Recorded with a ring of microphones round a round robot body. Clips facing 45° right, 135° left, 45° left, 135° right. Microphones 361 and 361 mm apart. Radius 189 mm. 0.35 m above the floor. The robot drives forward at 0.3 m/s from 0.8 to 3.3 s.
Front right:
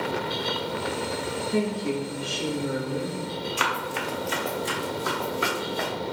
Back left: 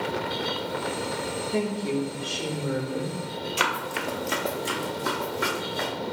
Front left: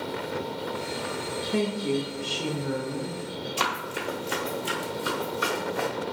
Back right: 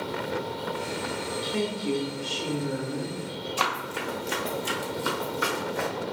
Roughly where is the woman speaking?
Ahead left.